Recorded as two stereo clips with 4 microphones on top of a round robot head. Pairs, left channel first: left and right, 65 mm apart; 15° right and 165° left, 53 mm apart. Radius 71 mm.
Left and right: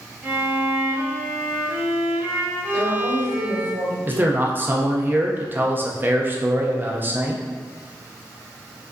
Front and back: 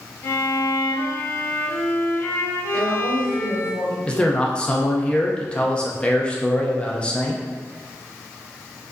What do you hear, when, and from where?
0.2 s a violin: 35° right, 1.2 m
2.7 s a woman speaking: 85° right, 1.9 m
4.1 s a man speaking: 65° right, 0.7 m